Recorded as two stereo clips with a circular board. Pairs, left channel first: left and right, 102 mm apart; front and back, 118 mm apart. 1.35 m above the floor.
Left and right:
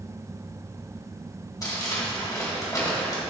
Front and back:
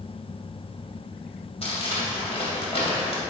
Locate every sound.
1.6 s crumpling: 35° left, 2.5 m